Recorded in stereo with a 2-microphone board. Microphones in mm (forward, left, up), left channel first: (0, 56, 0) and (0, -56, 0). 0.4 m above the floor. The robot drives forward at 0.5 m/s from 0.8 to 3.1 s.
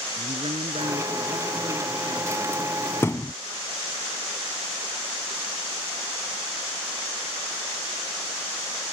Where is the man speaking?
70° right (ahead or behind); by 2.6 s 60° right (ahead or behind).